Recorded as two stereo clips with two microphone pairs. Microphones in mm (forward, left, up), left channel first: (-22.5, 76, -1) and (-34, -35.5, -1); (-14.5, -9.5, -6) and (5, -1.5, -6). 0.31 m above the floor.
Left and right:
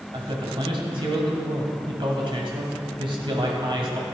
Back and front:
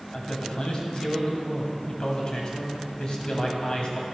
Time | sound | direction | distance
0.1 | a man speaking | 115° right | 2 m